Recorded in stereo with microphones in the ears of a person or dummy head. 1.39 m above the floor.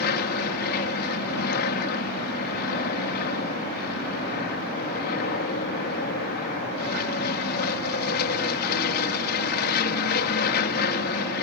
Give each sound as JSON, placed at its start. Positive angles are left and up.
{"t": 0.0, "sound": "an aircraft", "side_deg": 55}